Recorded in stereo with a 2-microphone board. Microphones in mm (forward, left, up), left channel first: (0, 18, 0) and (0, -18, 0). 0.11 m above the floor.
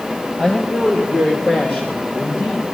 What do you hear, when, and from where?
0.4 s a woman speaking: 30° left (ahead or behind), 2 m; by 2.7 s 65° left (ahead or behind), 2.5 m